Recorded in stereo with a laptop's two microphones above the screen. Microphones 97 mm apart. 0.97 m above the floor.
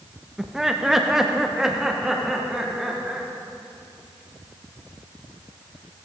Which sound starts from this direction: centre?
Laughter, at 0.4 s.